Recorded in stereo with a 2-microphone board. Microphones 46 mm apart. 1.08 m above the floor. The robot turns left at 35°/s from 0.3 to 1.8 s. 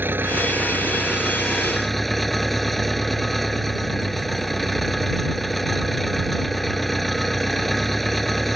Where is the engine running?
130° right; by 8.6 s 175° left.